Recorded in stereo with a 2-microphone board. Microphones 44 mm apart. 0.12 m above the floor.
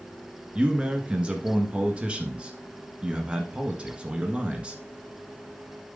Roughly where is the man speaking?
Right.